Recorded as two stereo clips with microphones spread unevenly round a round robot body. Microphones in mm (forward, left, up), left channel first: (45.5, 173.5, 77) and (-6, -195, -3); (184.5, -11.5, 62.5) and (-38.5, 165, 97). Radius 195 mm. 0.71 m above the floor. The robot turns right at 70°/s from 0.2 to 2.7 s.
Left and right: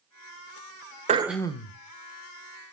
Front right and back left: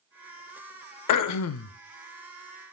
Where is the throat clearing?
25° right, 0.6 m; by 1.8 s 25° left, 0.6 m.